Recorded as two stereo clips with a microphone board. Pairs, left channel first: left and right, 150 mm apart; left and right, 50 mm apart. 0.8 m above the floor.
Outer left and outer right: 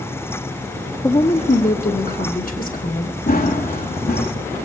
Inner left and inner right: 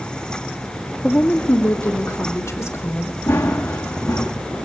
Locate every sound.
1.0 s a woman speaking: 30° left (ahead or behind), 1.2 m; by 3.2 s 80° left, 3.5 m
3.3 s running footsteps: 80° left, 4 m